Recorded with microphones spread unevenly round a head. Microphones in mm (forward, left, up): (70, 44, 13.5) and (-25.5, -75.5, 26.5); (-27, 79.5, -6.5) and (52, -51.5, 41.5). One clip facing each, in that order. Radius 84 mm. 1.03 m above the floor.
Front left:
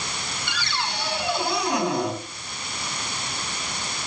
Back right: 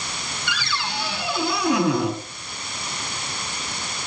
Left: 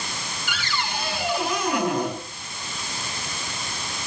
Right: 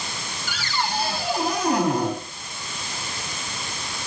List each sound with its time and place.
0.5 s a cupboard door: 115° right, 7.5 m